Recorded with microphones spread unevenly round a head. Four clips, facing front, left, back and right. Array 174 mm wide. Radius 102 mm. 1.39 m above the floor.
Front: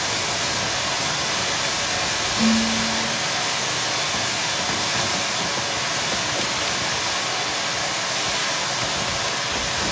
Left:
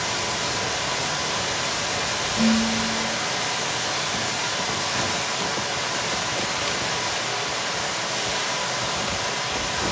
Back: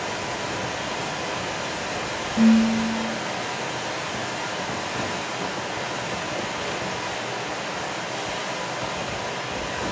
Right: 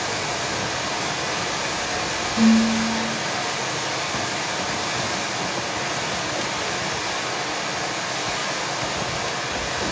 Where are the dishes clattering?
150° right, 1.5 m.